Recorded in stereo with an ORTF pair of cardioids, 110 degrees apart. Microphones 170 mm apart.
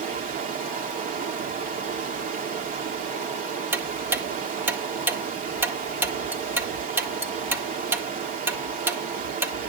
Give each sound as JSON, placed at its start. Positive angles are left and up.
{"t": 0.0, "sound": "running water", "azimuth_deg": -55, "distance_m": 2.5}
{"t": 3.7, "sound": "ticking", "azimuth_deg": -10, "distance_m": 1.7}